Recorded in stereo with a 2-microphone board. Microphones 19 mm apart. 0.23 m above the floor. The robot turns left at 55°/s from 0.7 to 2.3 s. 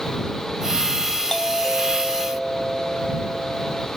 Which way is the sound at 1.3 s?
35° left.